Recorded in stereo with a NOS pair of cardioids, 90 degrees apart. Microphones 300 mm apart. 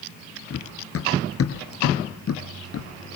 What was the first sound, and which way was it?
Running footsteps, 50° left.